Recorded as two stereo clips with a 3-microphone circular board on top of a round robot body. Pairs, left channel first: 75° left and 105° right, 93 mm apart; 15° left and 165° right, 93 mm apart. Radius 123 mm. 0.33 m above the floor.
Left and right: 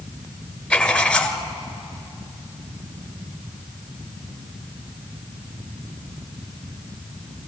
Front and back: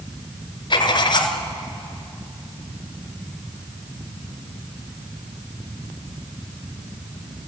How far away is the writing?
About 1.8 m.